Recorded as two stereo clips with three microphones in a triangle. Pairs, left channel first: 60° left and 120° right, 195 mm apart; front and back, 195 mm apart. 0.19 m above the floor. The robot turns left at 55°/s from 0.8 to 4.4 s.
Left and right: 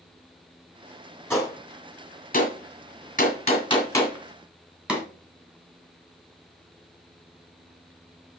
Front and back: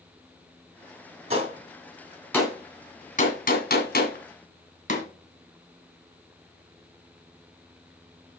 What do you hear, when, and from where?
1.3 s a gunshot: 135° left, 2 m; by 5.0 s 35° right, 2 m